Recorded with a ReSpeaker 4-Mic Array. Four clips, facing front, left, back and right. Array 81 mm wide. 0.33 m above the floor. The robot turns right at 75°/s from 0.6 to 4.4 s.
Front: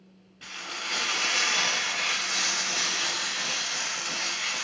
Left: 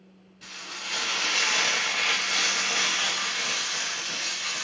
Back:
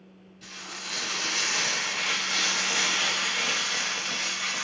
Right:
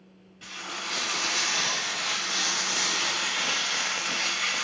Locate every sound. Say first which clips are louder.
0.4 s frying: right 4 dB, front 4 dB; 15° right, 1.5 m; by 4.7 s 90° right, 1.5 m